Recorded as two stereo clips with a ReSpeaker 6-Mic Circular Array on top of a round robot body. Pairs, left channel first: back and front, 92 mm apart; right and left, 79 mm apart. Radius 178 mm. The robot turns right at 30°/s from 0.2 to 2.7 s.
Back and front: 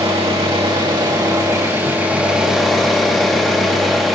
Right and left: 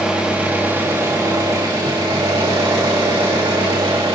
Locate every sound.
0.0 s an engine running: 15° left, 2.5 m; by 4.2 s 90° left, 2.5 m